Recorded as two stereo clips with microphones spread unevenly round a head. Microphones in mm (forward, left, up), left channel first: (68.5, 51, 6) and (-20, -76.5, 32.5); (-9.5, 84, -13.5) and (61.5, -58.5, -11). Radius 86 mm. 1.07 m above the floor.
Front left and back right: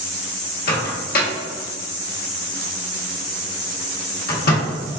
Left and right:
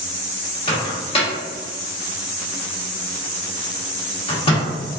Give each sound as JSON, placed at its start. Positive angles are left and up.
{"t": 0.7, "sound": "a microwave", "azimuth_deg": 65, "distance_m": 1.1}